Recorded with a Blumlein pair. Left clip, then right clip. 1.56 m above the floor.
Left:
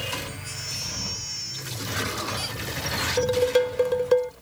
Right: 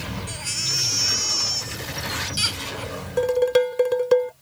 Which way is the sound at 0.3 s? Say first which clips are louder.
Right 8 dB; 30° right.